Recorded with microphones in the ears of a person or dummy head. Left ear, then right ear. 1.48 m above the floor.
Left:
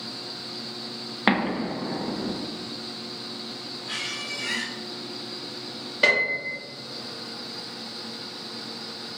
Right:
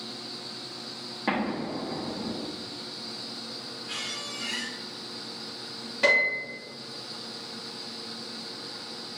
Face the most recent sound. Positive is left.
turn(degrees=10)  # may be behind; listen again after turning